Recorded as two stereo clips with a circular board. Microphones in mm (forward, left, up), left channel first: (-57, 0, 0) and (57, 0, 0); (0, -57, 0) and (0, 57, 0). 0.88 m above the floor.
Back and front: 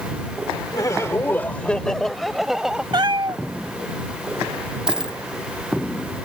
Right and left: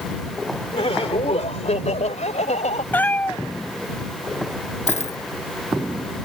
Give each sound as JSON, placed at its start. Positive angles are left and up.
{"t": 0.7, "sound": "laughter", "azimuth_deg": -125}
{"t": 2.9, "sound": "a cat meowing", "azimuth_deg": -20}
{"t": 4.9, "sound": "a dropped coin", "azimuth_deg": -85}